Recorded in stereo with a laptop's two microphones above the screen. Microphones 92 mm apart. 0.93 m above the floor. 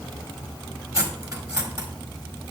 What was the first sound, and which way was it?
Cutlery clinking, 35° right (ahead or behind).